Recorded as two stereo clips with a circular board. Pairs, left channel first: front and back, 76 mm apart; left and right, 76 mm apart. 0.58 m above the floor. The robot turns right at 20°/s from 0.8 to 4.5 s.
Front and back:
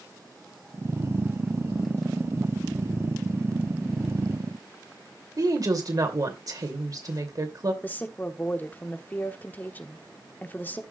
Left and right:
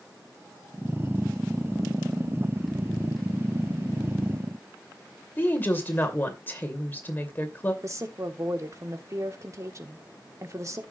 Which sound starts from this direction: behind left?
A woman speaking, at 5.4 s.